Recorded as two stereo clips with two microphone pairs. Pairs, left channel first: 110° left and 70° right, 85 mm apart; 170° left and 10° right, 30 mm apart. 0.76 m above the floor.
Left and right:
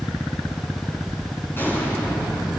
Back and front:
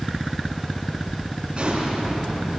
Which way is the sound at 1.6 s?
45° left.